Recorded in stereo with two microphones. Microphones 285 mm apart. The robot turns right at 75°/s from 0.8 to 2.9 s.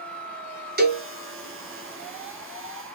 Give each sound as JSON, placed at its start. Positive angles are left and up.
{"t": 0.8, "sound": "a cowbell", "side_deg": -35, "distance_m": 0.9}